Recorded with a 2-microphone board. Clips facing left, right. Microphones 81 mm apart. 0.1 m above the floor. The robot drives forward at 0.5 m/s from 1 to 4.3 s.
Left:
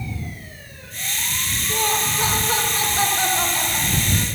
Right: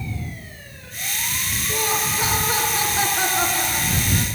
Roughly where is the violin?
No violin in this recording.